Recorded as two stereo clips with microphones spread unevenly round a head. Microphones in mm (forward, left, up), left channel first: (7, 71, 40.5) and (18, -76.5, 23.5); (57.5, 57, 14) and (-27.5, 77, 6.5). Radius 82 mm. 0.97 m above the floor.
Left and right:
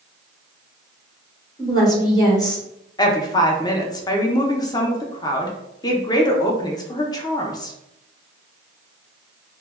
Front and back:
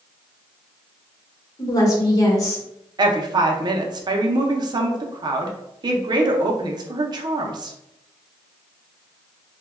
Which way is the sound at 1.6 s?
30° left.